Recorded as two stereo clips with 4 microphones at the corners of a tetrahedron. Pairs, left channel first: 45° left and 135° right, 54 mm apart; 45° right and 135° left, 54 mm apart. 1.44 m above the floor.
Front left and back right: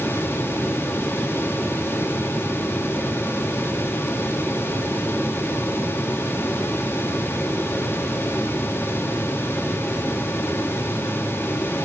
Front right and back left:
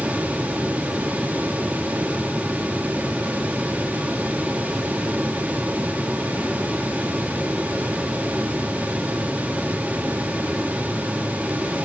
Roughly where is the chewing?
No chewing in this recording.